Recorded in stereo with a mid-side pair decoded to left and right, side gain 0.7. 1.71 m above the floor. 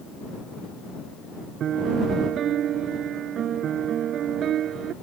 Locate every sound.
1.6 s a piano: 45° right